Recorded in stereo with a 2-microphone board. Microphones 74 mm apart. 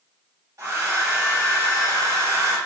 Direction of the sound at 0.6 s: 40° right (ahead or behind).